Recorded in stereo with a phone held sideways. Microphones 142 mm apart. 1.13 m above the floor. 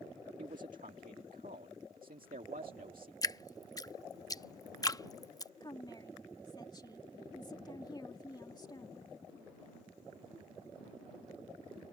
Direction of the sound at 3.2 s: 25° left (ahead or behind).